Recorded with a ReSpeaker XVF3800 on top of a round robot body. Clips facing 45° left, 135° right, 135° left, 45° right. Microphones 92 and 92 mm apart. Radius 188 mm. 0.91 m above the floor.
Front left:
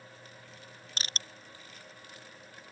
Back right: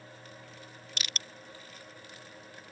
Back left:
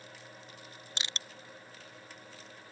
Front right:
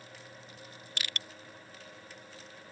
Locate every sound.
1.0 s crushing: 80° left